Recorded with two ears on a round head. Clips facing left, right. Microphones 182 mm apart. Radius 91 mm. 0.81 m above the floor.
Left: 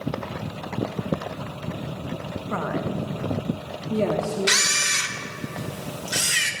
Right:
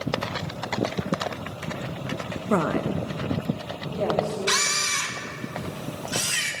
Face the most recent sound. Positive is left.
turn(degrees=25)  # may be behind; listen again after turning